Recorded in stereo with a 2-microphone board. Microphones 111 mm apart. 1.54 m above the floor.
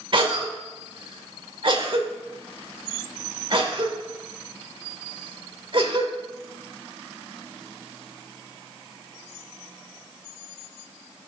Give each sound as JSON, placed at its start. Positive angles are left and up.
{"t": 0.1, "sound": "a cough", "side_deg": -50, "distance_m": 1.6}